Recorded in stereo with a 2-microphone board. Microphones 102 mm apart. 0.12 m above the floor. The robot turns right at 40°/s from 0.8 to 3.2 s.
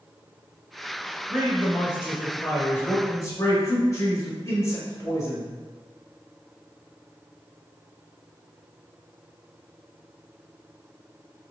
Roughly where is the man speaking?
Centre.